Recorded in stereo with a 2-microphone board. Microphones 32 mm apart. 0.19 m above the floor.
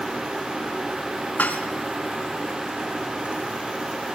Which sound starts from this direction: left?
Dishes clattering, at 1.4 s.